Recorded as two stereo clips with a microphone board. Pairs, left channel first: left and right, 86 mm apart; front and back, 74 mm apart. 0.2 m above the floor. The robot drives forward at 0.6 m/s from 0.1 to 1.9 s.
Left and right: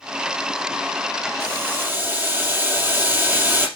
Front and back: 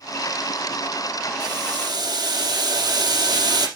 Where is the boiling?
150° right, 2.5 m; by 3.7 s 155° right, 3 m.